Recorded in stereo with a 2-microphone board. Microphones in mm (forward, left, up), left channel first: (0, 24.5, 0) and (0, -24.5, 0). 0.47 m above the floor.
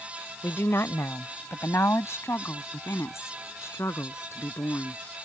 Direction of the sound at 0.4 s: 60° left (ahead or behind).